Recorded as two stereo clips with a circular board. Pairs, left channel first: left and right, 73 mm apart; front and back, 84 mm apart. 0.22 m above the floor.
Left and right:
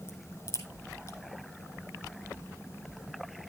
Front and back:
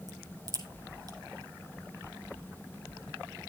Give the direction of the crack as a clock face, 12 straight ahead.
8 o'clock.